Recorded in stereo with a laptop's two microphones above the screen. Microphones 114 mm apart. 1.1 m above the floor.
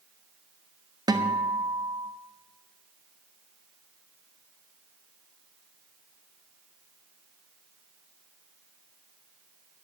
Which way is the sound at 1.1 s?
35° right (ahead or behind).